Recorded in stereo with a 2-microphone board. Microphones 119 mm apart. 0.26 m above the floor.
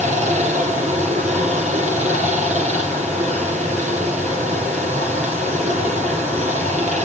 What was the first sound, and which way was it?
Running water, 80° right.